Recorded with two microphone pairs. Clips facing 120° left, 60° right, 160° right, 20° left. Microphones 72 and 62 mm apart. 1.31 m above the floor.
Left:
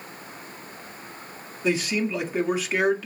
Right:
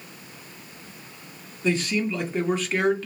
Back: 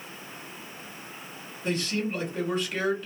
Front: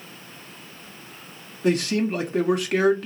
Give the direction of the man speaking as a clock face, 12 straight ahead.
11 o'clock.